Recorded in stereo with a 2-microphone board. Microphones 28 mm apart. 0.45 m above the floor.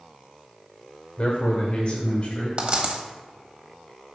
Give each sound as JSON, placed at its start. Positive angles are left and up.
{"t": 1.2, "sound": "a man speaking", "side_deg": 55, "distance_m": 1.1}
{"t": 2.6, "sound": "a dropped coin", "side_deg": -40, "distance_m": 1.3}